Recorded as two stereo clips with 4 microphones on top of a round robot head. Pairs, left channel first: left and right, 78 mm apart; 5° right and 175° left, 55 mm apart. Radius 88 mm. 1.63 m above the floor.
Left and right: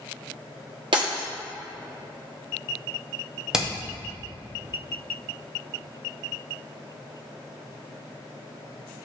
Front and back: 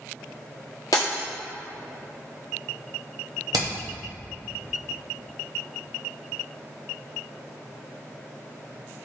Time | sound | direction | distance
0.9 | breaking glass | 50° right | 1.2 m
3.5 | hammering | 170° right | 1.2 m